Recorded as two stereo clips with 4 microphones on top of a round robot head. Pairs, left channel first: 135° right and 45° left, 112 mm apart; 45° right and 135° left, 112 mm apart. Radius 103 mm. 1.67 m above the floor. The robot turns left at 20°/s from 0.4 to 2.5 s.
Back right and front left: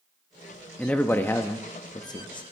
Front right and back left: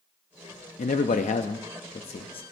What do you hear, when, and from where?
0.8 s a man speaking: 55° right, 0.5 m; by 2.4 s 85° right, 0.5 m